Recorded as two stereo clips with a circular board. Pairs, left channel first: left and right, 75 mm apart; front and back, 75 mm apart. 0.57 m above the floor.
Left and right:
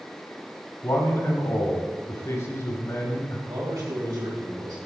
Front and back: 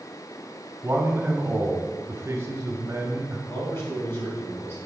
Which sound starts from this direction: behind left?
A man speaking, at 0.8 s.